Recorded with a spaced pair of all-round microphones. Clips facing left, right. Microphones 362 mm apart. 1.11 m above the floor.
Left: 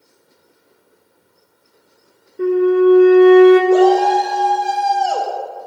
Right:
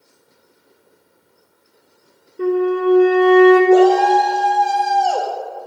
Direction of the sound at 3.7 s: 85° left.